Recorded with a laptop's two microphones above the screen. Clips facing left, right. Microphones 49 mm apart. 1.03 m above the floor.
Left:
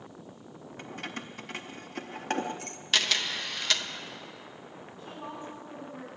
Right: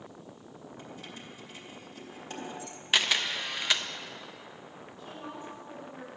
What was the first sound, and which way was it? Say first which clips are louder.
Keys jangling: left 8 dB; 60° left (ahead or behind).